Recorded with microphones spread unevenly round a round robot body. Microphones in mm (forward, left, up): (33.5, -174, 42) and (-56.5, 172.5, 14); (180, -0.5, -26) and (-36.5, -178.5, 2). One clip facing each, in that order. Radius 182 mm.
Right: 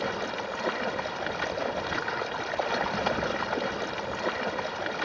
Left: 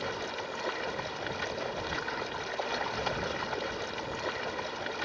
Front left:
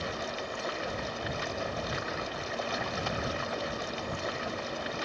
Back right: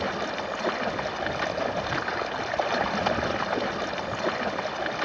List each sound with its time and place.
0.0 s running water: 110° right